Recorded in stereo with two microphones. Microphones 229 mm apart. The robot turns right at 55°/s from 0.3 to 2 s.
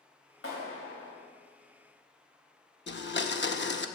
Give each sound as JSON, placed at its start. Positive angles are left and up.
{"t": 0.4, "sound": "a clap", "azimuth_deg": 65, "distance_m": 3.5}
{"t": 2.9, "sound": "a blender", "side_deg": 50, "distance_m": 0.7}